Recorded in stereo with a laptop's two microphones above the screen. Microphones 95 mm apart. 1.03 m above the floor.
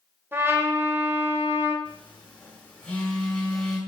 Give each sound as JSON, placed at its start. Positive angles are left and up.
{"t": 0.3, "sound": "a trumpet", "side_deg": -25, "distance_m": 0.8}
{"t": 1.9, "sound": "a phone buzzing", "side_deg": 15, "distance_m": 1.5}